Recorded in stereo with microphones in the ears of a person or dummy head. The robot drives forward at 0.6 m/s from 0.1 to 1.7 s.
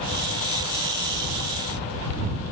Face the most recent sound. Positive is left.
No sound to turn to.